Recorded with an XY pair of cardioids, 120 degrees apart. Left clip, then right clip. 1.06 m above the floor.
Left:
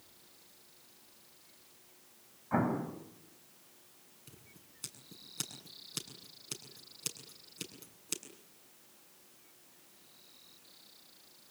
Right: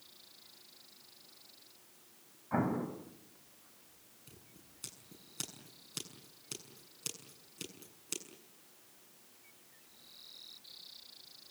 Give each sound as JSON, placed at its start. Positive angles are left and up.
{"t": 2.5, "sound": "an explosion", "azimuth_deg": 15, "distance_m": 5.0}
{"t": 4.3, "sound": "scissors", "azimuth_deg": 10, "distance_m": 7.0}